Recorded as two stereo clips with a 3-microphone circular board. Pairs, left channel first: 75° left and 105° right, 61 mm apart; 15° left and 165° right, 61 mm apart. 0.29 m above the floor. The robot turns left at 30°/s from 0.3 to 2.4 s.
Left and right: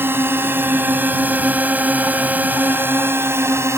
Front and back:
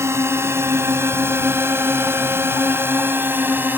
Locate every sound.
0.0 s a drone: 145° right; by 3.8 s 120° right